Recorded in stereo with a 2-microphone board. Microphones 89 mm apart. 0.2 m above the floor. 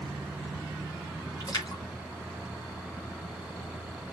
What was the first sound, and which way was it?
A splash, 50° left (ahead or behind).